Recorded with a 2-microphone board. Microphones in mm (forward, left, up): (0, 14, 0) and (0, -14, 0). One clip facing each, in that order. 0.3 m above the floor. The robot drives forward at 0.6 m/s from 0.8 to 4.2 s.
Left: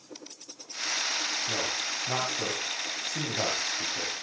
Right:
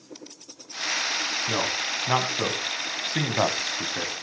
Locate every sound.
1.5 s a man speaking: 45° right (ahead or behind), 2.5 m; by 4.1 s 55° right (ahead or behind), 2.5 m